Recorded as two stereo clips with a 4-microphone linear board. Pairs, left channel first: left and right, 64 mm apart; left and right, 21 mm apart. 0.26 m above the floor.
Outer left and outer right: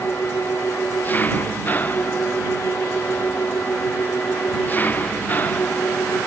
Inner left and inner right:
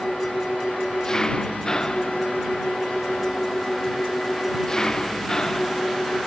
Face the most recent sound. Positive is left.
turn(degrees=30)  # may be behind; listen again after turning